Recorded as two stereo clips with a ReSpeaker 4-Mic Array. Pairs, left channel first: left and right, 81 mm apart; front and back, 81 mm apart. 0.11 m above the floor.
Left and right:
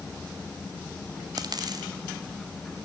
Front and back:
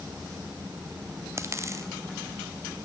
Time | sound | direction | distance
1.4 | a dropped coin | 125° right | 2.5 m